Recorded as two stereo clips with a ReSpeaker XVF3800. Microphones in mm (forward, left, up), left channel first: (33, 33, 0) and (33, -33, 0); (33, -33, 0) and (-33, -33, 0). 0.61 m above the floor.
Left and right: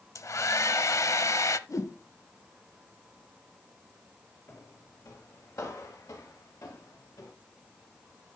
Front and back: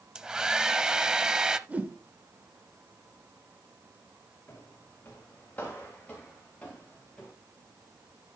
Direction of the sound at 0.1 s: 105° left.